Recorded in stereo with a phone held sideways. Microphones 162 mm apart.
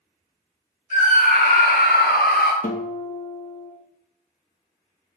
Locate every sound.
0.9 s a scream: 50° left (ahead or behind), 1.2 m; by 2.5 s 70° left (ahead or behind), 0.8 m
2.6 s a guitar: 55° left (ahead or behind), 0.5 m